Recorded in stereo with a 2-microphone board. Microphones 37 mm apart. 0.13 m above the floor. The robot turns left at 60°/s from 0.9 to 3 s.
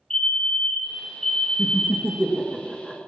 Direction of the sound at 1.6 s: 30° right (ahead or behind).